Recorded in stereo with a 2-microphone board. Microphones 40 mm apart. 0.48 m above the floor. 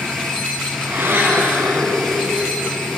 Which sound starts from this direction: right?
A blender, at 0.8 s.